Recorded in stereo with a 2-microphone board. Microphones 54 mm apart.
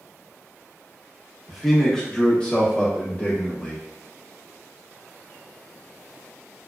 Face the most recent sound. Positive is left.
turn(degrees=30)  # may be behind; listen again after turning